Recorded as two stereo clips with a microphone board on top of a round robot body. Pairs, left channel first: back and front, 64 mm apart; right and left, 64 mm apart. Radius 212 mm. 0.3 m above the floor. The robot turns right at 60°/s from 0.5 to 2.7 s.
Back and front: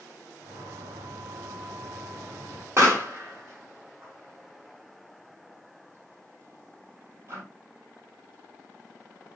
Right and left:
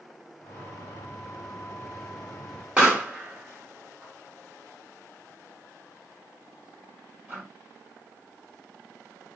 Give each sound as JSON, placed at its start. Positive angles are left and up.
{"t": 2.8, "sound": "a pop", "azimuth_deg": 25, "distance_m": 1.7}